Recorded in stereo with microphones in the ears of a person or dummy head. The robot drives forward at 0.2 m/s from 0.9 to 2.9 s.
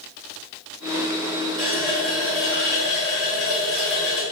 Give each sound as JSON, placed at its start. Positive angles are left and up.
{"t": 1.6, "sound": "a running tap", "side_deg": 5, "distance_m": 0.8}